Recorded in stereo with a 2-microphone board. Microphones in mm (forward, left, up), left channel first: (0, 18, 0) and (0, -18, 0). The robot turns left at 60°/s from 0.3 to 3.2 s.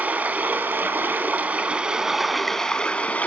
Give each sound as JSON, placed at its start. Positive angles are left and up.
{"t": 0.0, "sound": "running water", "azimuth_deg": -60, "distance_m": 0.8}